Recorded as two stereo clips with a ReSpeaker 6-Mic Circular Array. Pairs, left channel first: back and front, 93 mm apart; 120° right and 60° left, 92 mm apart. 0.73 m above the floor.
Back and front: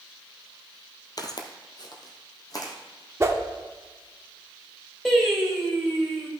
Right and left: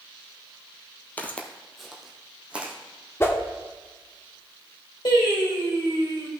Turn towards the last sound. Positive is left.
turn(degrees=-95)